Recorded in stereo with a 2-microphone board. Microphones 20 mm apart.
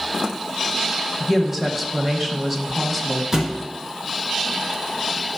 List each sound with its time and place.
1.2 s a woman speaking: 5° right (ahead or behind), 1.0 m
3.3 s a thud: 25° right (ahead or behind), 1.2 m